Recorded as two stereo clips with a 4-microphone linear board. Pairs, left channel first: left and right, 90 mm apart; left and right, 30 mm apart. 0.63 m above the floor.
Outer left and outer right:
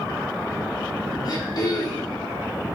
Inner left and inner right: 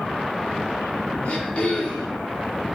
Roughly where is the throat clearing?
Left.